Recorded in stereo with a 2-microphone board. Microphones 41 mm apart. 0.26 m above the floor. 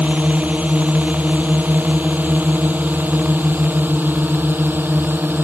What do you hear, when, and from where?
0.0 s a drone: 35° right (ahead or behind); by 5.5 s 50° right (ahead or behind)